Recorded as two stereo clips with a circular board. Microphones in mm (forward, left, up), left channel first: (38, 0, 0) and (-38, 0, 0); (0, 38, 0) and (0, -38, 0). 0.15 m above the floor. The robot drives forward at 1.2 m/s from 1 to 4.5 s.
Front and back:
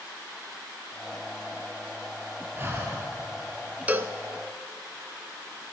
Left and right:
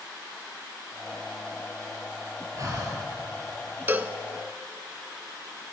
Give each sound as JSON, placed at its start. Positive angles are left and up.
{"t": 2.5, "sound": "breathing", "azimuth_deg": -125, "distance_m": 2.5}
{"t": 3.9, "sound": "a cowbell", "azimuth_deg": -125, "distance_m": 0.5}